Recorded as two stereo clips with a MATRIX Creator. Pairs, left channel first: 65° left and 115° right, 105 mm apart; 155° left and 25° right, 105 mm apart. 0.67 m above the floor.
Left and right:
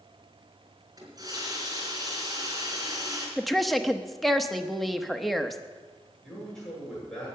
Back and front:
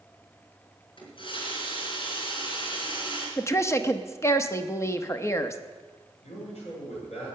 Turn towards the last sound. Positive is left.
turn(degrees=150)